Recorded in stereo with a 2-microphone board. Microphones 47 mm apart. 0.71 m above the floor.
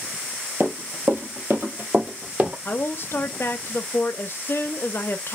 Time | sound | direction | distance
0.6 | running footsteps | 65° right (ahead or behind) | 1.6 m
2.6 | a woman speaking | 55° left (ahead or behind) | 0.7 m